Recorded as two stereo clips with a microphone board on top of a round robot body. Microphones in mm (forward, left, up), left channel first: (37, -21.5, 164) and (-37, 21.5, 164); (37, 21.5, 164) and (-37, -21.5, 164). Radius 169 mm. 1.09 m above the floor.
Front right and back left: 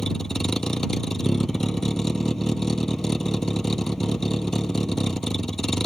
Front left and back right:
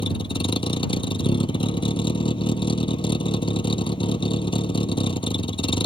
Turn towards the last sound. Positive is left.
turn(degrees=55)